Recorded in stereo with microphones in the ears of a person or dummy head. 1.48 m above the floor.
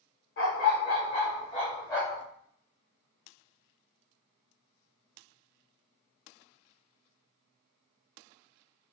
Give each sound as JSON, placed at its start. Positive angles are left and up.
{"t": 0.4, "sound": "a dog barking", "side_deg": 55, "distance_m": 1.7}